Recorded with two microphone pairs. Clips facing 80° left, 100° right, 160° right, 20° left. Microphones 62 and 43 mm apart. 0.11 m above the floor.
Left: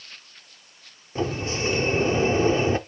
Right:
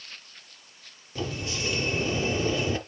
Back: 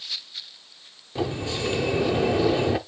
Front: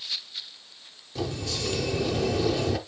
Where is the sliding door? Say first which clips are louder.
Left 6 dB, back 4 dB; 140° left, 0.5 m.